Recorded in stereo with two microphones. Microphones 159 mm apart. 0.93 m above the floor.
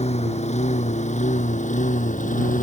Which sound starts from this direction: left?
A lawn mower, at 0.0 s.